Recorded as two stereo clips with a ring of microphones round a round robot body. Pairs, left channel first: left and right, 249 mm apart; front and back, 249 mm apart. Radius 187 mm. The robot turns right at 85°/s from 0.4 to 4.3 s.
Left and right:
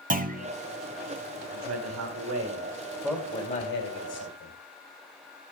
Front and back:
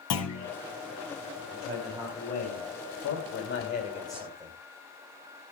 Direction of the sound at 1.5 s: 135° right.